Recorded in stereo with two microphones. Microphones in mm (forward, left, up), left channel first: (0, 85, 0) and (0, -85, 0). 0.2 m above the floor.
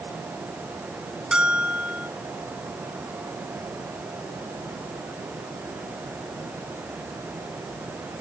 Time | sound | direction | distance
1.3 | a bell | 5° right (ahead or behind) | 0.9 m